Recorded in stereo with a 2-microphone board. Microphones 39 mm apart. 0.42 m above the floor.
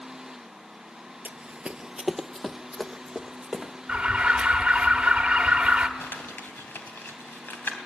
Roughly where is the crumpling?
Left.